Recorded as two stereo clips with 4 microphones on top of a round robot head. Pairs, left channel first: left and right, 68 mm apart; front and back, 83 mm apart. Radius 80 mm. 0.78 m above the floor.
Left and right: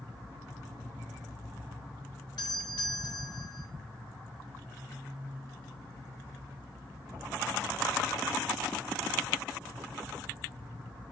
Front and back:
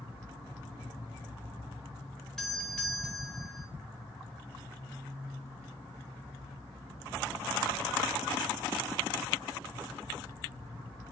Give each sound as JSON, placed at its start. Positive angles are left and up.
{"t": 2.4, "sound": "a doorbell", "azimuth_deg": 85, "distance_m": 4.5}